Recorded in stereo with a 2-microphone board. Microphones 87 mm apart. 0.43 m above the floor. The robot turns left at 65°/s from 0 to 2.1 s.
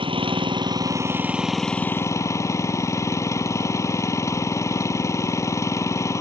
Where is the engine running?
80° right; by 6.2 s 145° left.